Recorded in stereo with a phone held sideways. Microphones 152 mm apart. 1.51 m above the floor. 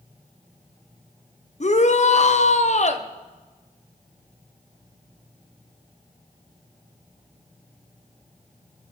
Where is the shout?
55° left (ahead or behind), 0.9 m.